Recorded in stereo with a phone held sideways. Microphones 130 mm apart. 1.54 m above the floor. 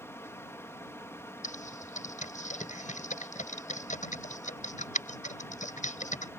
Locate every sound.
0.0 s a fan: 20° left (ahead or behind)
1.4 s typing on a keyboard: 80° left